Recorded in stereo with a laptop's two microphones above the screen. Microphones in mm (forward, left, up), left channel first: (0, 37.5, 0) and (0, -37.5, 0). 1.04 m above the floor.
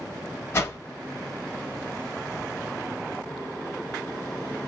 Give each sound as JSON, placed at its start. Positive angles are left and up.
{"t": 0.5, "sound": "a whoosh", "side_deg": 35, "distance_m": 0.8}